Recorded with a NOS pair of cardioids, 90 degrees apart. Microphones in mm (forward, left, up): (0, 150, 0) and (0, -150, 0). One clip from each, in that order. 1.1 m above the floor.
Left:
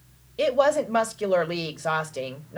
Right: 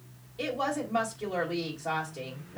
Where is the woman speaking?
55° left, 1.2 m.